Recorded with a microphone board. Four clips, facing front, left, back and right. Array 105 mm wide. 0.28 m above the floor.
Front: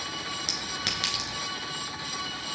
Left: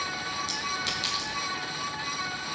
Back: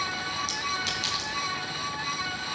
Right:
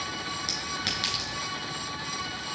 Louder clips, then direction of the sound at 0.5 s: Left 2 dB, back 4 dB; 30° right.